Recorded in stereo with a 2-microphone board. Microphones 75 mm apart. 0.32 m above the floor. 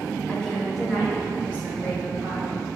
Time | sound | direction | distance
0.3 | a woman speaking | 20° left (ahead or behind) | 0.9 m